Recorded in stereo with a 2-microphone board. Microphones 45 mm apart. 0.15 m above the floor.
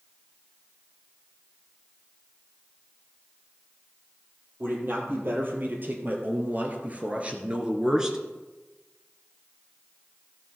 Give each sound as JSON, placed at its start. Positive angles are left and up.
{"t": 4.6, "sound": "a man speaking", "side_deg": -55, "distance_m": 3.5}